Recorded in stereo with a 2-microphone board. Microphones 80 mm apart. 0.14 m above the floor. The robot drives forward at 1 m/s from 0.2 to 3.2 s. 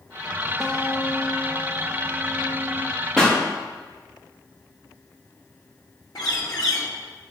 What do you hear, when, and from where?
0.6 s a guitar: 5° left (ahead or behind), 2.5 m; by 2.9 s 45° left (ahead or behind), 0.5 m
3.2 s a pop: 10° left (ahead or behind), 5.5 m
6.2 s a bird: 65° left (ahead or behind), 3.5 m